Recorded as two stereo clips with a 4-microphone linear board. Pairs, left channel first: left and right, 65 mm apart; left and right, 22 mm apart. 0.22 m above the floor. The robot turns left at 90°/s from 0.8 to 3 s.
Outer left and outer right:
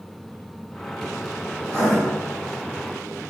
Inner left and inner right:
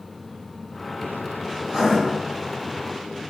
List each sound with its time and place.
1.6 s writing: 35° right (ahead or behind), 1.8 m; by 2.0 s 15° right (ahead or behind), 1.8 m